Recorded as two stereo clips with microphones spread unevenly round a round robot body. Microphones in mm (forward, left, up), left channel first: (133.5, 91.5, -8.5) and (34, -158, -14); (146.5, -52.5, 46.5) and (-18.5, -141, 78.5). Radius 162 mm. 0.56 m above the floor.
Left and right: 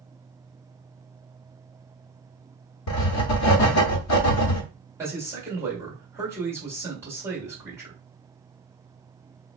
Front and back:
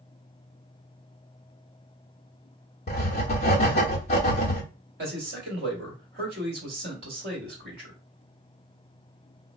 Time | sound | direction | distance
2.9 | writing | 65° left | 0.6 m
5.0 | a man speaking | 170° left | 1.5 m